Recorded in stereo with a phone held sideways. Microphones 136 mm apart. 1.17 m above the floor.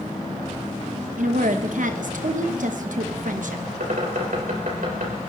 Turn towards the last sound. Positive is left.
turn(degrees=-85)